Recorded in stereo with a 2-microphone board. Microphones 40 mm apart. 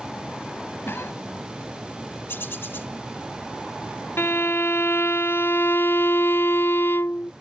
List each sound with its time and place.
0.8 s a cough: 70° left (ahead or behind)
2.3 s a bird: 70° left (ahead or behind)
4.2 s a violin: 70° left (ahead or behind)